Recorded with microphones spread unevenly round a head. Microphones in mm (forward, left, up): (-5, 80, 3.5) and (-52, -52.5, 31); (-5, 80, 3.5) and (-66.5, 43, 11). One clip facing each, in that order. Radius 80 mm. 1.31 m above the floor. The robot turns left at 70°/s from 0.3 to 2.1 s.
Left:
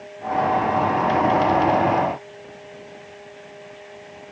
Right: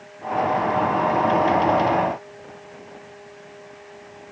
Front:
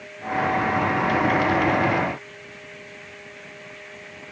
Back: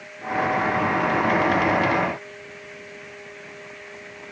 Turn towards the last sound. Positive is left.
No sound to turn to.